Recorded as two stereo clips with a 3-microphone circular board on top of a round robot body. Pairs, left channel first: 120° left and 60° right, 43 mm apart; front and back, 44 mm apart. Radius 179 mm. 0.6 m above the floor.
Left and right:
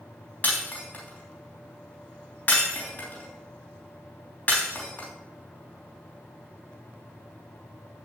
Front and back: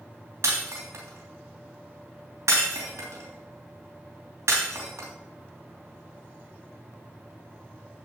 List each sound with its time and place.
0.4 s breaking glass: 175° left, 3.5 m